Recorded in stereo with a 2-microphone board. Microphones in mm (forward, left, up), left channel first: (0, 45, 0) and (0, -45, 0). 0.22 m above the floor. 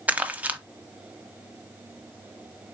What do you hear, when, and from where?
0.1 s crumpling: 15° right (ahead or behind), 0.5 m